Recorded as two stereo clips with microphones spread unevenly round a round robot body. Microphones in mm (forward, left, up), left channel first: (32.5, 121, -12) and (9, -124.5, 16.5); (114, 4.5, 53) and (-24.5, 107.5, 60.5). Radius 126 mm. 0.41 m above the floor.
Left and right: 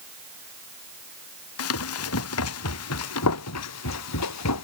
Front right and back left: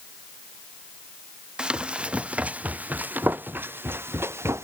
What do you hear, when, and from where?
1.6 s running footsteps: 60° left; by 4.6 s 70° left